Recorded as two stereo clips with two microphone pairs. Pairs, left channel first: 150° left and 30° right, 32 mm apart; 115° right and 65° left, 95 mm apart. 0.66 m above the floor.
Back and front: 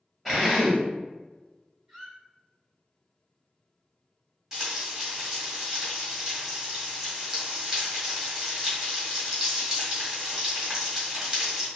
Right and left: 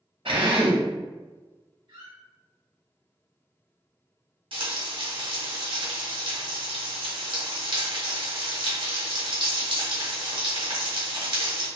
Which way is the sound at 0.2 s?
55° left.